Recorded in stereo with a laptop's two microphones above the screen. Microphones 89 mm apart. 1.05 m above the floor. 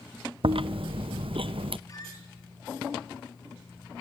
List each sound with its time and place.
0.4 s chewing: 70° right (ahead or behind), 0.5 m
1.9 s a squeak: 35° left (ahead or behind), 5 m